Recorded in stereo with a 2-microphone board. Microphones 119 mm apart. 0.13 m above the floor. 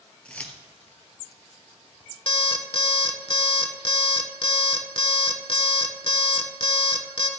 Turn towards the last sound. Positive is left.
turn(degrees=50)  # may be behind; listen again after turning